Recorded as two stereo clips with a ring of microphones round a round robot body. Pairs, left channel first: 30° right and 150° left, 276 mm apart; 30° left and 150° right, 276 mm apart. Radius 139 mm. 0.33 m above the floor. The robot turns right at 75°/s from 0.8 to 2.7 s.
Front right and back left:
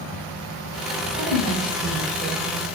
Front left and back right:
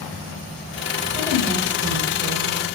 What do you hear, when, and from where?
1.1 s a woman speaking: 130° left, 0.9 m; by 2.6 s 120° right, 0.9 m